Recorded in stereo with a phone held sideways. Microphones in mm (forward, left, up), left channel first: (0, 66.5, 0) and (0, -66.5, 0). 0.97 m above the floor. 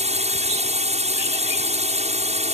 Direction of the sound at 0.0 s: 55° right (ahead or behind).